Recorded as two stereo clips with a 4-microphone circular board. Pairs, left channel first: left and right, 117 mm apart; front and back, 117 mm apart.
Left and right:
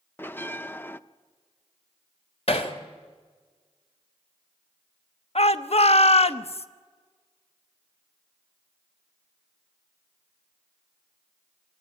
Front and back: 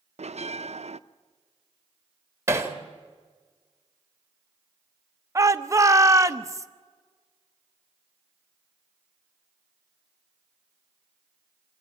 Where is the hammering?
115° left, 1.7 m.